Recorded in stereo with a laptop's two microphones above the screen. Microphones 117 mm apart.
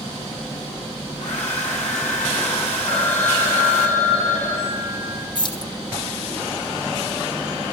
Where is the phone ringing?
70° left (ahead or behind), 3 m.